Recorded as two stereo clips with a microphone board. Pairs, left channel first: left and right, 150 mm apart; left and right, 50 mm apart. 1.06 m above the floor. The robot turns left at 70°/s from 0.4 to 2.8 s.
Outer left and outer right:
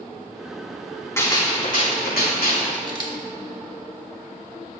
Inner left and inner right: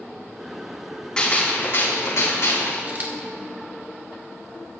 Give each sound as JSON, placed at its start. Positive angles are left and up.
{"t": 1.2, "sound": "a gunshot", "azimuth_deg": 160, "distance_m": 3.0}
{"t": 2.9, "sound": "a camera shutter", "side_deg": -30, "distance_m": 1.6}